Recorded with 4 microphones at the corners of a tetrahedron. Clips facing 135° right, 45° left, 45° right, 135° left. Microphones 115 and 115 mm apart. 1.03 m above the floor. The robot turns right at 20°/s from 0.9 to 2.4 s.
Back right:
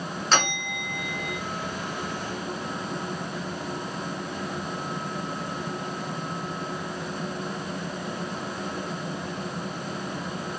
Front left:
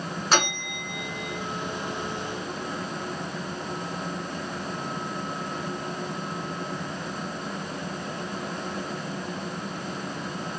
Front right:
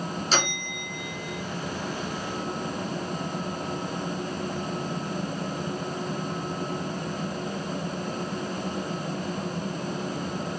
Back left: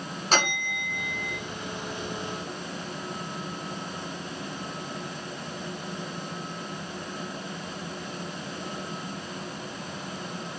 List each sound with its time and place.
0.3 s a bell: 120° left, 1.4 m; by 1.4 s 130° left, 1.4 m